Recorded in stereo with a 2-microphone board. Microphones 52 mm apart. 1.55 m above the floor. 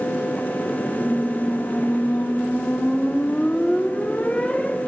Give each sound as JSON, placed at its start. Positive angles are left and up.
{"t": 1.0, "sound": "a squeak", "side_deg": 25, "distance_m": 0.7}